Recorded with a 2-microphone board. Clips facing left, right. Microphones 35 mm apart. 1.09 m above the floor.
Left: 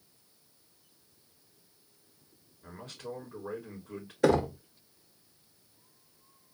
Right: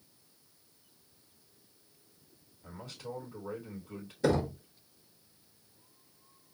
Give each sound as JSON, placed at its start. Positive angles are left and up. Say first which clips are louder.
{"t": 2.6, "sound": "a man speaking", "louder": "left 1 dB", "side_deg": 50, "distance_m": 3.0}
{"t": 4.2, "sound": "knocking", "louder": "left 4 dB", "side_deg": 80, "distance_m": 1.0}